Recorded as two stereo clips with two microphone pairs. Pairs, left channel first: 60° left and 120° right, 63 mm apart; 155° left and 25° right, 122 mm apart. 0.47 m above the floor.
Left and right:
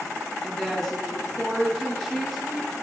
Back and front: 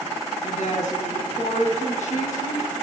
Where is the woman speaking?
145° left, 4.5 m.